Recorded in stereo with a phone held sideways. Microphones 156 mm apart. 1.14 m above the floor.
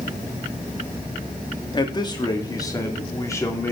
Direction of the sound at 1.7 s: 30° left (ahead or behind).